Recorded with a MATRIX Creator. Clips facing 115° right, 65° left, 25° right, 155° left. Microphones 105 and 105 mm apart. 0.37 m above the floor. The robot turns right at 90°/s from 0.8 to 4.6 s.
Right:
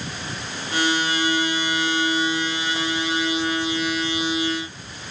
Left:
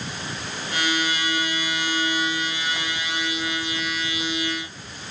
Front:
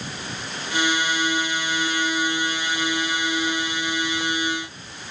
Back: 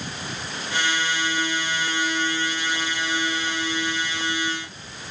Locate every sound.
Only background noise.